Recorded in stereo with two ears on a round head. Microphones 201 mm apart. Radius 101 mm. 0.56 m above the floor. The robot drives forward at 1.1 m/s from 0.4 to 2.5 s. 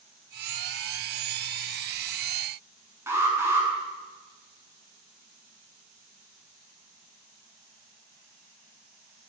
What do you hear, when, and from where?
3.1 s an alarm: 10° right (ahead or behind), 7.5 m